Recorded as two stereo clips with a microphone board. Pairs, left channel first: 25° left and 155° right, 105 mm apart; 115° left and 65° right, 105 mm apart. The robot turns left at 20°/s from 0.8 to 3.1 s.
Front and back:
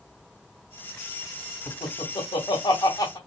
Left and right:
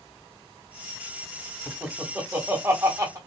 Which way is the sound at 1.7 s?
15° left.